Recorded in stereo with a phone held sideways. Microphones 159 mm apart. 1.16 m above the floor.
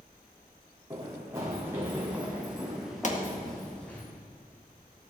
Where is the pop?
50° left (ahead or behind), 1.7 m.